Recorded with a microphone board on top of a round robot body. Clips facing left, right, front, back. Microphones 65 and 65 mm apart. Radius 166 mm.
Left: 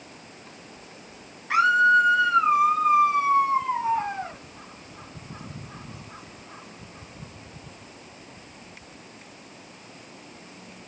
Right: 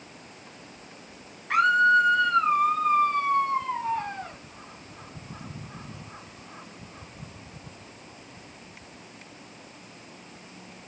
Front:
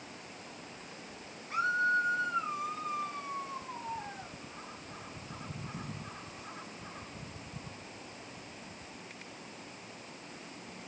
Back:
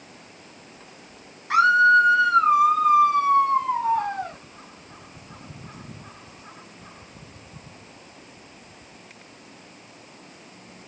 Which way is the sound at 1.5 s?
175° left.